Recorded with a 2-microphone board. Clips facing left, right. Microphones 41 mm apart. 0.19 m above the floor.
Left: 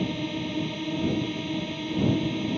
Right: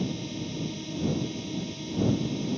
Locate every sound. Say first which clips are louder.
0.0 s a drone: left 4 dB; 40° left (ahead or behind)